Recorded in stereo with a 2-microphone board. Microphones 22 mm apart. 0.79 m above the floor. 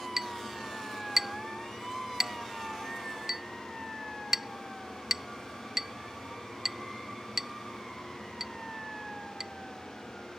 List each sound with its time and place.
0.2 s a clink: 20° right (ahead or behind)